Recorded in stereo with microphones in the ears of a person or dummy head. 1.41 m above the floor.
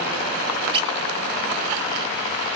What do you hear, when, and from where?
0.7 s a squeak: 30° right (ahead or behind), 0.5 m